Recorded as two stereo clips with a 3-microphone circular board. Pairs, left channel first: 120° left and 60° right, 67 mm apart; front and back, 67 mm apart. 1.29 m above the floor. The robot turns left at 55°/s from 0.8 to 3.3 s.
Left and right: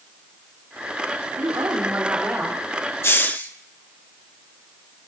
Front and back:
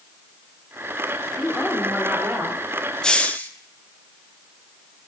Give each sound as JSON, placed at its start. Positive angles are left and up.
{"t": 1.4, "sound": "a woman speaking", "azimuth_deg": -80, "distance_m": 3.5}
{"t": 3.0, "sound": "a hiss", "azimuth_deg": 75, "distance_m": 0.9}